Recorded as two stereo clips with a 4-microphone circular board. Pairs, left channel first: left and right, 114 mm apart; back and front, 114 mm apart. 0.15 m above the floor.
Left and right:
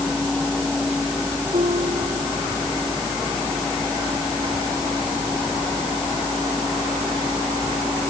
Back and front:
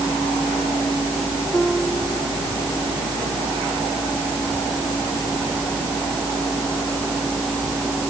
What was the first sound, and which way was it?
A piano, 90° right.